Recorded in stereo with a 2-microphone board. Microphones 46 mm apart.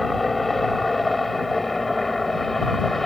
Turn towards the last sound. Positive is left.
turn(degrees=5)  # may be behind; listen again after turning